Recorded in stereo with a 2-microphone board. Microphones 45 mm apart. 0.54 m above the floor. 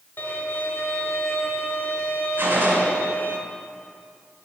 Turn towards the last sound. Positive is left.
turn(degrees=-55)  # may be behind; listen again after turning